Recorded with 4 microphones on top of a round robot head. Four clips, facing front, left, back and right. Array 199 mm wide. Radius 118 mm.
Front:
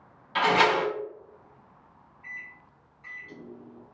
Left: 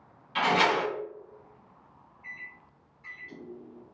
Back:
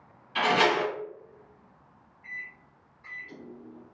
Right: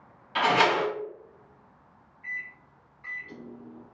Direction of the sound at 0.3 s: 35° right.